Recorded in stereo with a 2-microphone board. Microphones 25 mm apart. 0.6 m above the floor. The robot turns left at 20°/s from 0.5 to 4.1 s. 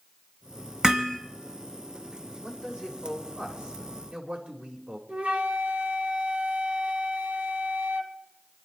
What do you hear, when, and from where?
0.8 s hammering: 30° right (ahead or behind), 2.5 m; by 1.2 s 35° right (ahead or behind), 2.5 m
2.4 s a man speaking: 35° right, 3 m; by 5.0 s 70° right, 3 m
5.1 s a flute: 75° right (ahead or behind), 1.7 m